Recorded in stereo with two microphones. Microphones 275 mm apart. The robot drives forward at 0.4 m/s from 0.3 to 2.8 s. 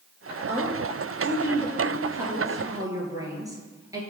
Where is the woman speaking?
10° right (ahead or behind), 3 m.